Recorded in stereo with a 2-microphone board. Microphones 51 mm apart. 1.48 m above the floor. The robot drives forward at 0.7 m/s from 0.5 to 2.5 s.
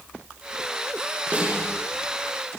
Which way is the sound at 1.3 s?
25° right (ahead or behind).